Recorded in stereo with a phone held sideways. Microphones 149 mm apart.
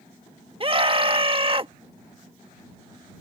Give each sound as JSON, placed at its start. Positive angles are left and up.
{"t": 0.6, "sound": "a scream", "side_deg": -35}